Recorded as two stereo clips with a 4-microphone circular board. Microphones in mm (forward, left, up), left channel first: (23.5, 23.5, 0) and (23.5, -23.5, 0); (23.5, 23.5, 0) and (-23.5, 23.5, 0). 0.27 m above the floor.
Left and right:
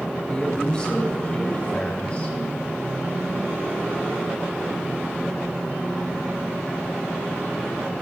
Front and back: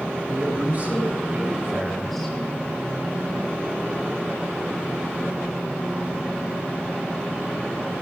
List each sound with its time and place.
0.3 s a woman speaking: 155° left, 2.5 m; by 2.4 s 70° left, 1.6 m